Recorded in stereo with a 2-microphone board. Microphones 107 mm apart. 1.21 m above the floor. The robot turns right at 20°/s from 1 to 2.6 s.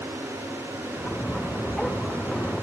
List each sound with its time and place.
Only background noise.